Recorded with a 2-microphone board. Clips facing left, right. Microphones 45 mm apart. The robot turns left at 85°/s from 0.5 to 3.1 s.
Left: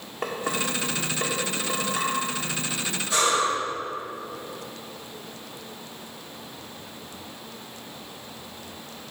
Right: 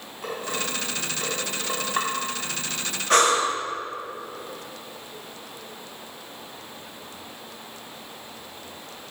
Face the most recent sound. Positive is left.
turn(degrees=-60)  # may be behind; listen again after turning